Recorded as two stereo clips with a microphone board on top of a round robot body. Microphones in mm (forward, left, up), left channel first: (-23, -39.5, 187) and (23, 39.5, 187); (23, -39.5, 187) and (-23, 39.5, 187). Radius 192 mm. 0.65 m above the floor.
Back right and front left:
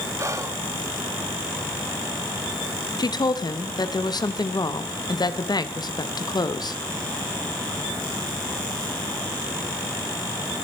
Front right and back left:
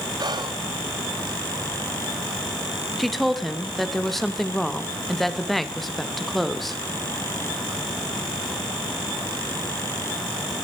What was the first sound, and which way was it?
Whispering, 110° left.